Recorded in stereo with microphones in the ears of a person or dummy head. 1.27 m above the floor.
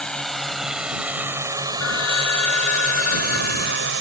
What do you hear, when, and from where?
0.0 s a drone: 5° left (ahead or behind); by 4.0 s 65° right (ahead or behind)
1.8 s a phone ringing: 80° left